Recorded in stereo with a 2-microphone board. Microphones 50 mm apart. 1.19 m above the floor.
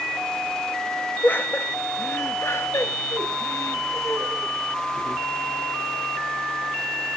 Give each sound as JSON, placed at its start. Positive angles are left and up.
{"t": 1.2, "sound": "laughter", "side_deg": 40, "distance_m": 1.7}